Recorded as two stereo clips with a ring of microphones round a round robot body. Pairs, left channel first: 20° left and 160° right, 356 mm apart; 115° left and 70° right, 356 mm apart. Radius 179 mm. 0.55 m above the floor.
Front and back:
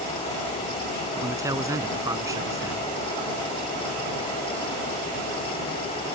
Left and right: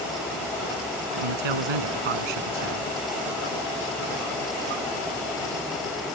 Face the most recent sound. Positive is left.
turn(degrees=-75)